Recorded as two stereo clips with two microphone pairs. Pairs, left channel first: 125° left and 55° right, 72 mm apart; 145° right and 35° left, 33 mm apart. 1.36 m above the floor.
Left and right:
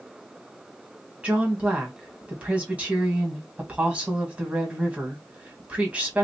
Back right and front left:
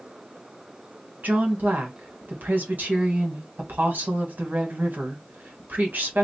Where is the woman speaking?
15° left, 1.7 m.